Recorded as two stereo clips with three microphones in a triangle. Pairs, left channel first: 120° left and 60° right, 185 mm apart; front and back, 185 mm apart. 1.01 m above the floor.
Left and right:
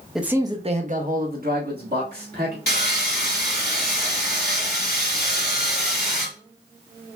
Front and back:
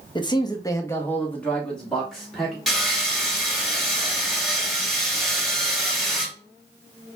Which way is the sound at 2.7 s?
90° left.